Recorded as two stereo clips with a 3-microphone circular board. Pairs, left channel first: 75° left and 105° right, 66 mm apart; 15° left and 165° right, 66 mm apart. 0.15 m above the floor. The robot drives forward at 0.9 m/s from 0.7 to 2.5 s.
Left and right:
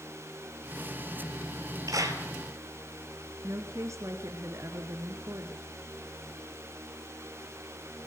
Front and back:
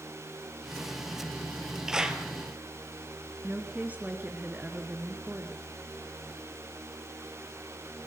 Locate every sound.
1.9 s a clap: 85° right, 2.5 m; by 2.2 s 95° right, 2.5 m
3.4 s a woman speaking: 110° right, 2 m